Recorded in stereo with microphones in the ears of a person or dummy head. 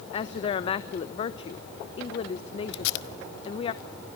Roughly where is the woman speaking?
Left.